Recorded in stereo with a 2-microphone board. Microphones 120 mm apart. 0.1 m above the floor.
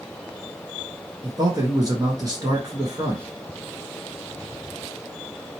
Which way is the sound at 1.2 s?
35° right (ahead or behind).